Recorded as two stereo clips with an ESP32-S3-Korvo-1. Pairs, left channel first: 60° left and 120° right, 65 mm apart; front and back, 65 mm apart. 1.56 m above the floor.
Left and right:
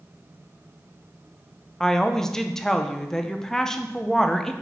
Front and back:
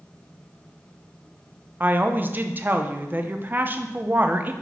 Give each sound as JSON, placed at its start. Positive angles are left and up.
{"t": 1.8, "sound": "a woman speaking", "azimuth_deg": 140, "distance_m": 0.6}